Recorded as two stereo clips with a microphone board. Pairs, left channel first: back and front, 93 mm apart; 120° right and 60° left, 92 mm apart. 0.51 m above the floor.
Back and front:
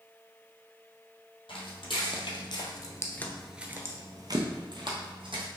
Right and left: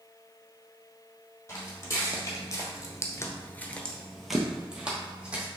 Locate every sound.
1.5 s footsteps: 175° right, 1.4 m; by 5.5 s 15° right, 1.5 m